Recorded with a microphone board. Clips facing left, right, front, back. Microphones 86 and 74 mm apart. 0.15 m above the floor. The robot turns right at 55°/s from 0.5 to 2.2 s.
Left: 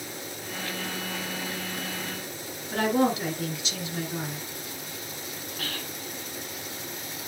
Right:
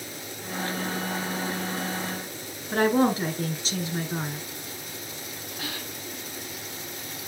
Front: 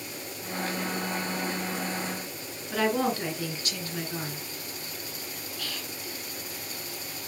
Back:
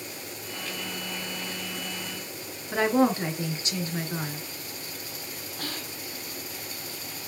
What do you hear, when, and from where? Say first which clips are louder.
2.7 s a woman speaking: right 2 dB, back 4 dB; 120° right, 2.5 m
5.6 s whispering: right 1 dB, back 3 dB; 160° right, 1.7 m